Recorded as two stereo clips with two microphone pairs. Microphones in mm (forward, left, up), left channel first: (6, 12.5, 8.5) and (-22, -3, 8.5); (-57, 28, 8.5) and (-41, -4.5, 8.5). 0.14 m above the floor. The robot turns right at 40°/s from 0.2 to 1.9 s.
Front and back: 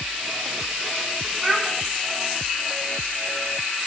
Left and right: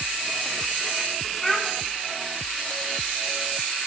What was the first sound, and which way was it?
A child speaking, 175° right.